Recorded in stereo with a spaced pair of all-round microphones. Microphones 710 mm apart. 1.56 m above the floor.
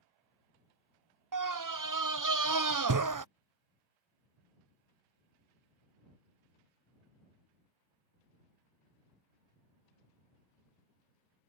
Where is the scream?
30° right (ahead or behind).